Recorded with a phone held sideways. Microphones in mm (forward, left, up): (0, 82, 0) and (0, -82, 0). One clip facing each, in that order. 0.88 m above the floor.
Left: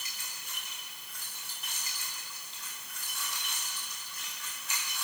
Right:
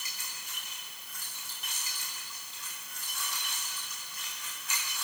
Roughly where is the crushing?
I don't hear crushing.